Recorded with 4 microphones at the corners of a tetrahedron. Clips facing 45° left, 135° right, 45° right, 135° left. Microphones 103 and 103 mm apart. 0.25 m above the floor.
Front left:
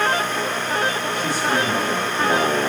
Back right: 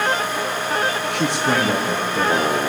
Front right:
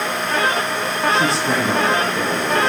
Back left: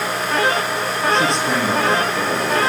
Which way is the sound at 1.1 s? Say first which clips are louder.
Back right 2 dB, back left 1 dB; 135° right.